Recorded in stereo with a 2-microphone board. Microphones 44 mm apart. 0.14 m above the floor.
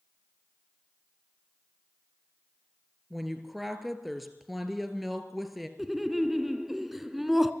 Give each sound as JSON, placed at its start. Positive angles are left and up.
{"t": 3.1, "sound": "a woman speaking", "side_deg": -5, "distance_m": 2.0}
{"t": 5.8, "sound": "laughter", "side_deg": -5, "distance_m": 1.2}